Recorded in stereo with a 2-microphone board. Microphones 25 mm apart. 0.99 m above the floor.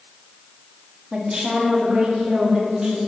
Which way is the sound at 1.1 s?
40° right (ahead or behind).